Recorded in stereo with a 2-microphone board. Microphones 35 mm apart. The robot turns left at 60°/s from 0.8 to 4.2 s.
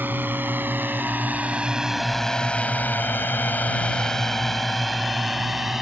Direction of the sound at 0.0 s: 75° right (ahead or behind).